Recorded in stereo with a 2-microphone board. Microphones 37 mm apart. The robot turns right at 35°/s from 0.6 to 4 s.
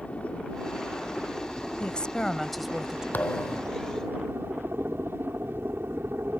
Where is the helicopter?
35° left (ahead or behind); by 6.4 s 65° right (ahead or behind).